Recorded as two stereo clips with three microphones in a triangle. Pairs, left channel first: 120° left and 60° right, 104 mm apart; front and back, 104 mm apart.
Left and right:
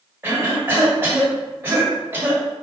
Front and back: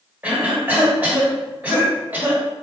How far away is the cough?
About 1.6 m.